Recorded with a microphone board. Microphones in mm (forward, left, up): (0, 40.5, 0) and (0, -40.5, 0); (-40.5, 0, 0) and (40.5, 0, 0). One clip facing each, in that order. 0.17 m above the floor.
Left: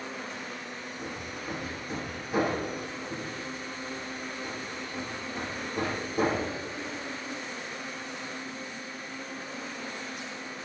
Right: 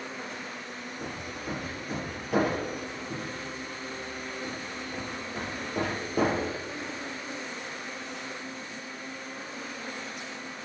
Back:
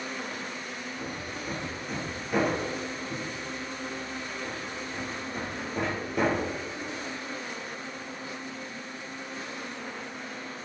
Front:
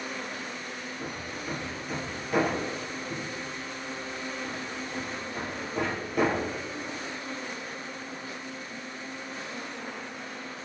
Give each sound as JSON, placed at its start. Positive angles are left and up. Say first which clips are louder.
{"t": 1.0, "sound": "hammering", "louder": "right 1 dB, even", "azimuth_deg": -90, "distance_m": 3.0}